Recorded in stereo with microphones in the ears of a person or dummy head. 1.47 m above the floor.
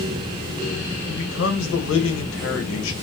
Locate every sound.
1.1 s a man speaking: 85° left, 1.4 m